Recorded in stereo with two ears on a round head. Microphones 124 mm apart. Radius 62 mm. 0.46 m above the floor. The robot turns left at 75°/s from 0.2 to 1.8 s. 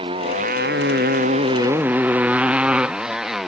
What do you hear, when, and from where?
0.0 s a motorcycle: 35° right (ahead or behind); by 3.5 s centre (ahead or behind)